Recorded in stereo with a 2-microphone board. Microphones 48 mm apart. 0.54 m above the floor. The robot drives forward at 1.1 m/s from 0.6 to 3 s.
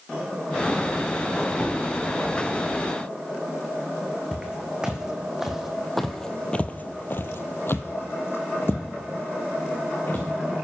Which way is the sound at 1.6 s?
15° left (ahead or behind).